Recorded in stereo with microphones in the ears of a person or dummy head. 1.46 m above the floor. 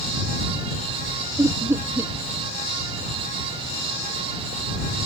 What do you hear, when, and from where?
1.4 s laughter: 15° right (ahead or behind)